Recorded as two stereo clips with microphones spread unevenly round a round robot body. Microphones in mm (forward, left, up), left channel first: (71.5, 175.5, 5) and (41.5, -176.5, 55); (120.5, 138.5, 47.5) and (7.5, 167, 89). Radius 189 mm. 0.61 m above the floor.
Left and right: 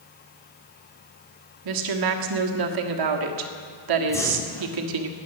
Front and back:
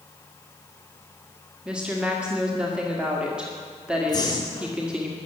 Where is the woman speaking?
95° right, 1.6 m.